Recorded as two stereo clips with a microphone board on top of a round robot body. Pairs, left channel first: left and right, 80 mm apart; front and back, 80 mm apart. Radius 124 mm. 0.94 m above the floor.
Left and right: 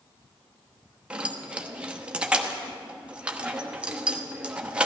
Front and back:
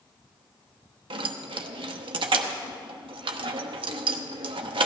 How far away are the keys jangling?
About 0.9 m.